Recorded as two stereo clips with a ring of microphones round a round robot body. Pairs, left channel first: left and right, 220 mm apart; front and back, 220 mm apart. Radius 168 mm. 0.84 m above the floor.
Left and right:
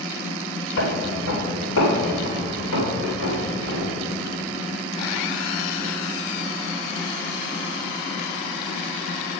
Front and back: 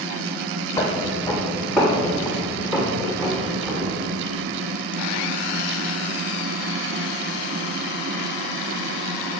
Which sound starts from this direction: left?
Footsteps, at 0.8 s.